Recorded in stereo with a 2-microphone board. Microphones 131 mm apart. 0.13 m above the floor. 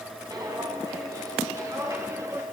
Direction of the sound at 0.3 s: 25° right (ahead or behind).